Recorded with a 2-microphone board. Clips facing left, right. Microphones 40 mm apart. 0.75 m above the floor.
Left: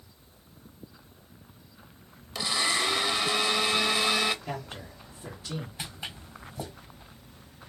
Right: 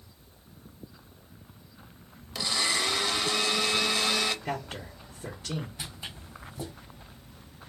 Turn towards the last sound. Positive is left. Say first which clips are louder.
# left 2 dB
turn(degrees=35)  # may be behind; listen again after turning